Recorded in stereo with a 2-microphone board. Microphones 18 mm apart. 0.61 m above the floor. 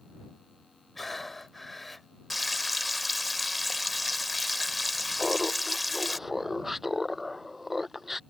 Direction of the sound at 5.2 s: 10° right (ahead or behind).